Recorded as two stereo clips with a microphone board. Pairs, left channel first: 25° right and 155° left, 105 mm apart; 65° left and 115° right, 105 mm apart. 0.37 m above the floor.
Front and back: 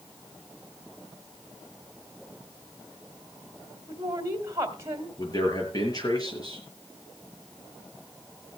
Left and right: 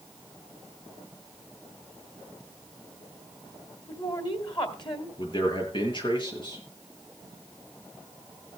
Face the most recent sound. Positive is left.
turn(degrees=30)